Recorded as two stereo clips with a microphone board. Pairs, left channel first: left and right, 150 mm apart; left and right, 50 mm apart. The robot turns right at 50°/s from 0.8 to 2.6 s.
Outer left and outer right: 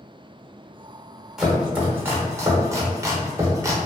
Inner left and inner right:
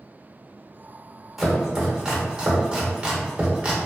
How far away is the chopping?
About 0.7 m.